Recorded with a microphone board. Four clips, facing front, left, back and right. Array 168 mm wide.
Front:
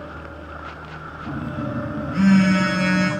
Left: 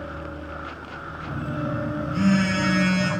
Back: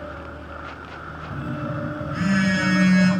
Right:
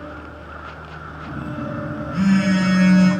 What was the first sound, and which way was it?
A phone buzzing, straight ahead.